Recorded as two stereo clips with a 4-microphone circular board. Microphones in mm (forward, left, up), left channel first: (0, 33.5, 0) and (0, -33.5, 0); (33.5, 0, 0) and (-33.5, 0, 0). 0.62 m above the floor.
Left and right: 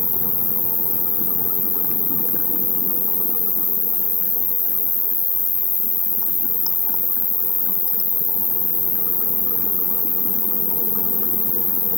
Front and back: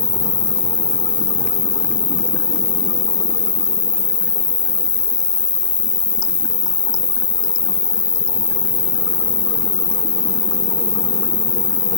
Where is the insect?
175° right, 0.8 m.